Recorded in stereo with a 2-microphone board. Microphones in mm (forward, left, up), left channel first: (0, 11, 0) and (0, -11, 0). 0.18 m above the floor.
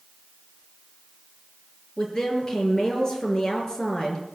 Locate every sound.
2.0 s a woman speaking: 25° left (ahead or behind), 4 m